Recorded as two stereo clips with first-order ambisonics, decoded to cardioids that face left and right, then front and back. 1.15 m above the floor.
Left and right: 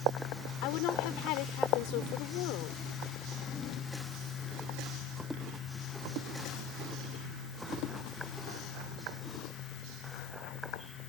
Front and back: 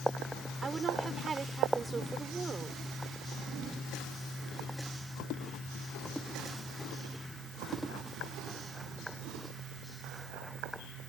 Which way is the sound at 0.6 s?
105° left.